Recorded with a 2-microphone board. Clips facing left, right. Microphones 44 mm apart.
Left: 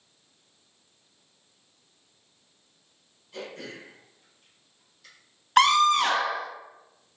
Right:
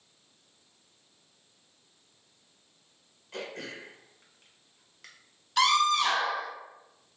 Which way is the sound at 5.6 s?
50° left (ahead or behind).